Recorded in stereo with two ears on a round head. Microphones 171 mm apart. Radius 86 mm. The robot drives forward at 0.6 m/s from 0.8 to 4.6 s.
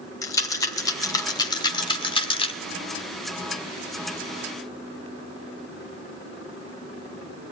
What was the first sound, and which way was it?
A rattle, 20° left (ahead or behind).